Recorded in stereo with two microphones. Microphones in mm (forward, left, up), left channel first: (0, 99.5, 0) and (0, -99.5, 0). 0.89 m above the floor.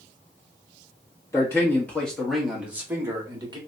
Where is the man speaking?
15° left (ahead or behind), 1.8 m; by 3.6 s 25° right (ahead or behind), 1.5 m.